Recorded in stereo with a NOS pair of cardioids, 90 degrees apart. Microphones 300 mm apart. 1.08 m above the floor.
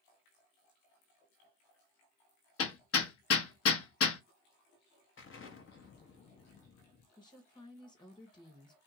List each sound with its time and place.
2.6 s hammering: 50° left, 1.0 m
5.2 s an explosion: 40° left, 0.9 m
7.2 s a woman speaking: 15° left, 1.5 m